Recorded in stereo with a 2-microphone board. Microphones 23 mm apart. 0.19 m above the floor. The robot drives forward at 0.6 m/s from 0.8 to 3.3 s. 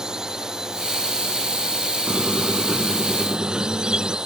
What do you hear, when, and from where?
0.0 s a drone: 25° right (ahead or behind)
2.1 s a squeak: 45° right (ahead or behind); by 4.2 s 35° right (ahead or behind)